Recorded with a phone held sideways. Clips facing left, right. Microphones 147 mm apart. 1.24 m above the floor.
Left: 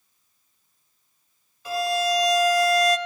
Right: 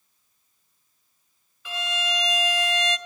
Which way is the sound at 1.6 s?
35° left (ahead or behind).